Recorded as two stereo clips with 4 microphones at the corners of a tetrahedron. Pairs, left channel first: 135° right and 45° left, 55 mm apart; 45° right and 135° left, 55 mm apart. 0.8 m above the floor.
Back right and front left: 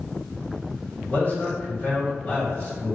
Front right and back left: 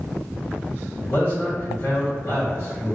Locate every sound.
1.1 s a man speaking: 75° right, 1.8 m